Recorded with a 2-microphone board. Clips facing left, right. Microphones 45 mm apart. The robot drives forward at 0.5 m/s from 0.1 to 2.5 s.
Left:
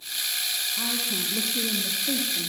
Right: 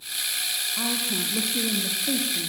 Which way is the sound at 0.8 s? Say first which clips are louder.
Right 3 dB; 55° right (ahead or behind).